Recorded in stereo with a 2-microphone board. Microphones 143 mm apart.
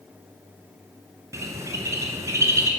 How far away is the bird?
About 0.7 m.